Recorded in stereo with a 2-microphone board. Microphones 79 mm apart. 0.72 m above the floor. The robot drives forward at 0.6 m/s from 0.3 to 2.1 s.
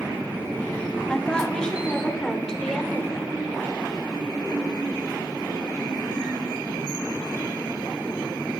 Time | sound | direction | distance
1.1 | a woman speaking | 10° left (ahead or behind) | 1.2 m